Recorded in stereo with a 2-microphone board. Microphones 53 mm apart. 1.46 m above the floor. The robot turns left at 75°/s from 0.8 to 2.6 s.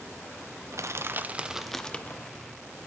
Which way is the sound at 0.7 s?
115° right.